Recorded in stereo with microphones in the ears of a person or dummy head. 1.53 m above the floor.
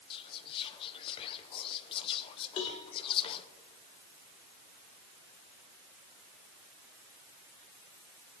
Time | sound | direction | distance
0.1 | whispering | 25° left (ahead or behind) | 0.9 m
2.6 | a cowbell | 30° left (ahead or behind) | 1.5 m